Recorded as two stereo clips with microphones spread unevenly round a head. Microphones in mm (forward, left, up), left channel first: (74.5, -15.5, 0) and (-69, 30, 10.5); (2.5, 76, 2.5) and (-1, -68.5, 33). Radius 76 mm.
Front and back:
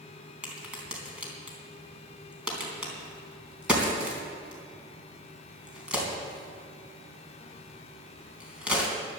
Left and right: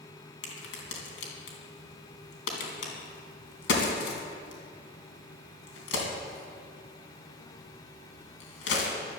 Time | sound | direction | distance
0.4 | a crack | 80° left | 3.5 m